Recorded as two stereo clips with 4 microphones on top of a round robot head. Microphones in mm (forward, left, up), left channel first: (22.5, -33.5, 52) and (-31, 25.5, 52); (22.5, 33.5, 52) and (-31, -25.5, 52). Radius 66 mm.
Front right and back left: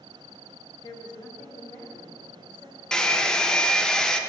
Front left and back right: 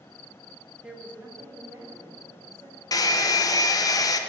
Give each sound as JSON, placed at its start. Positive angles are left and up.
{"t": 0.8, "sound": "a woman speaking", "azimuth_deg": -50, "distance_m": 0.8}
{"t": 2.9, "sound": "a hair dryer", "azimuth_deg": 30, "distance_m": 0.6}